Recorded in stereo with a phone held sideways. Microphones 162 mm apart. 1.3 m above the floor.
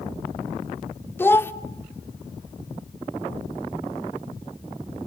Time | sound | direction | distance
1.2 | a child speaking | 15° left (ahead or behind) | 0.7 m